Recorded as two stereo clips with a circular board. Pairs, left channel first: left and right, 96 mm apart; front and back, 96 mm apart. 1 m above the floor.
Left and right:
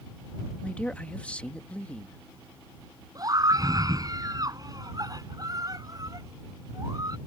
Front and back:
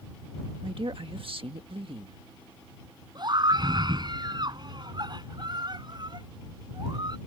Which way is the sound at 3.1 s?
140° right.